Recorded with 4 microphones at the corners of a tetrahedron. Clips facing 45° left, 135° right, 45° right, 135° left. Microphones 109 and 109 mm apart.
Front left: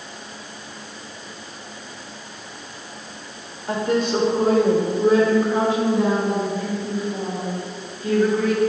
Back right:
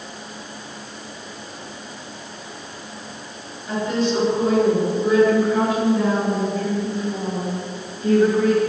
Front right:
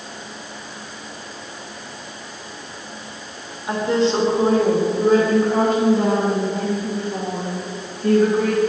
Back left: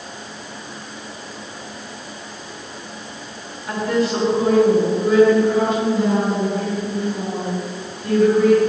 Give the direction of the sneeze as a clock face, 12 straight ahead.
No sneeze in this recording.